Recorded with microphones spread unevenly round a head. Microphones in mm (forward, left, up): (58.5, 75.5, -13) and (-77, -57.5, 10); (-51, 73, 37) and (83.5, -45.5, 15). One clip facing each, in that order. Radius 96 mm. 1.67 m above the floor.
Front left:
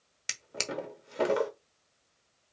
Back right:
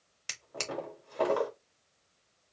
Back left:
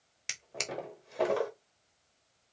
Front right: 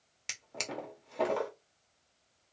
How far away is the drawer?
About 1.1 m.